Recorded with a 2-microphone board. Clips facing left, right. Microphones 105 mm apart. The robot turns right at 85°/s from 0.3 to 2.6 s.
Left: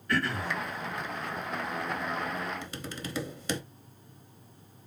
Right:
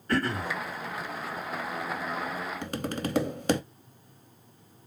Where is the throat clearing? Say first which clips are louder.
Right 2 dB; 40° right (ahead or behind), 1.6 m; by 0.5 s 45° right (ahead or behind), 1.6 m.